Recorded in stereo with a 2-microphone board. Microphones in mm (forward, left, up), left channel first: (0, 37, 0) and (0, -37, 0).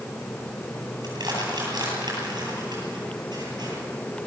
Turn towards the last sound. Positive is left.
turn(degrees=-70)  # may be behind; listen again after turning